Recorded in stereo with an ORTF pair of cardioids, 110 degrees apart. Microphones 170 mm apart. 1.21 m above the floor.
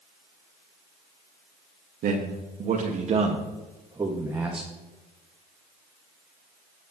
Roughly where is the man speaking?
Ahead right.